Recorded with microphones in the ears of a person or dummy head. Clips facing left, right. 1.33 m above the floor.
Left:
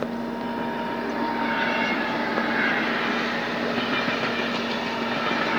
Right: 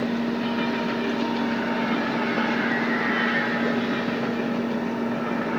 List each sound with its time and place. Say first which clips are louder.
0.0 s a fan: right 4 dB; 20° right (ahead or behind)